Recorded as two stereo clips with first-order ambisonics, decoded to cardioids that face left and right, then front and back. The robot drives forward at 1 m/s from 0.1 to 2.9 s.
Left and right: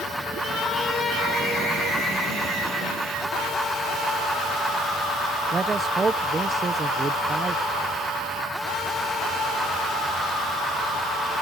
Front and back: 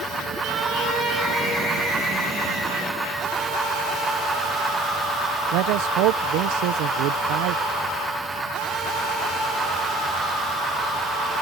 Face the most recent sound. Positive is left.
turn(degrees=-160)